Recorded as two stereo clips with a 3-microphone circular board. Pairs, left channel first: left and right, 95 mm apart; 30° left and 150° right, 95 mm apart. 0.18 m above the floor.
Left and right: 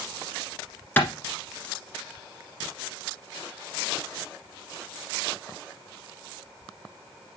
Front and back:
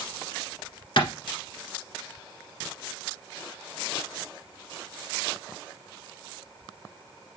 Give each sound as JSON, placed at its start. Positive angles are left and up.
{"t": 1.0, "sound": "a clap", "azimuth_deg": 25, "distance_m": 1.6}